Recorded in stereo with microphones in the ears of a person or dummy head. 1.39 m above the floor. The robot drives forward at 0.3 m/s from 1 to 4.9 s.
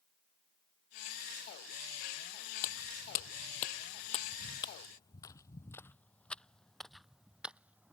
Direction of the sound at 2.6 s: 50° left (ahead or behind).